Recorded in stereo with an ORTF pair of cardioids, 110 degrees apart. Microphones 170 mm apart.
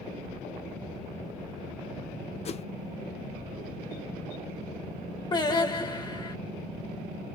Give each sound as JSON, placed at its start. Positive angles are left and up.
{"t": 2.5, "sound": "a whoosh", "azimuth_deg": 40, "distance_m": 0.9}
{"t": 5.3, "sound": "singing", "azimuth_deg": 25, "distance_m": 1.5}